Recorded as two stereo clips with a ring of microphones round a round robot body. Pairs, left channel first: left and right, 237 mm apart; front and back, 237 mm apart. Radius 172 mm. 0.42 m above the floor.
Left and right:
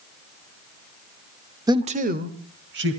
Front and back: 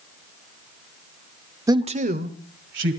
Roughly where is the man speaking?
Behind right.